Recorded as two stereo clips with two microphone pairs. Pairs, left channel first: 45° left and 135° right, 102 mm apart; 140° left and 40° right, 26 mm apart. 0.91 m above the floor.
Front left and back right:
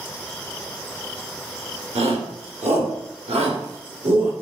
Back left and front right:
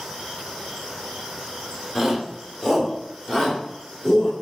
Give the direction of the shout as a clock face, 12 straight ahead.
4 o'clock.